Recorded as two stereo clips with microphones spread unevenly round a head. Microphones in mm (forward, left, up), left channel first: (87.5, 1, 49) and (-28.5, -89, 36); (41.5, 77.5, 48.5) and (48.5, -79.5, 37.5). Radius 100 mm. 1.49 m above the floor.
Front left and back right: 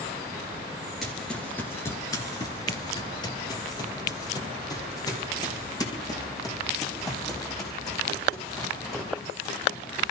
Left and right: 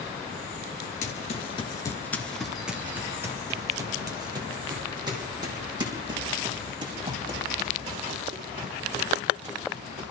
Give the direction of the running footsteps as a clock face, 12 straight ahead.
8 o'clock.